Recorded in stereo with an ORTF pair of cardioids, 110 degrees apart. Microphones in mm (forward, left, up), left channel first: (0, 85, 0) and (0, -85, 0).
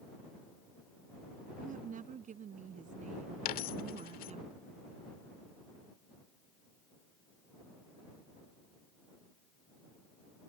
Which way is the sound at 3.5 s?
65° left.